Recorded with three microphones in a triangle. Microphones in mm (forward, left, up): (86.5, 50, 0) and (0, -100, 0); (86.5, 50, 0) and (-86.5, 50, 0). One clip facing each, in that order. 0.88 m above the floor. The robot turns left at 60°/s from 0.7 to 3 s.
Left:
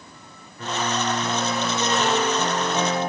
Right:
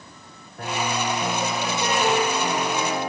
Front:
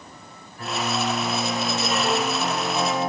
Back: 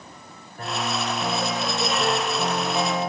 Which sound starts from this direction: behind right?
A piano, at 0.6 s.